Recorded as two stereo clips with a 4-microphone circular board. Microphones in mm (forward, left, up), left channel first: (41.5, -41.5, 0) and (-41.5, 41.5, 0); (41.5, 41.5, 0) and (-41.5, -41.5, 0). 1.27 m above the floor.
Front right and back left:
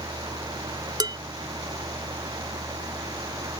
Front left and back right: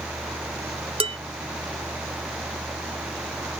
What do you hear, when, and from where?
1.0 s dishes clattering: 170° right